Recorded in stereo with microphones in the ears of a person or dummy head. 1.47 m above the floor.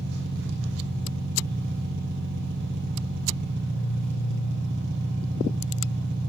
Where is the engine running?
60° right (ahead or behind), 1.6 m.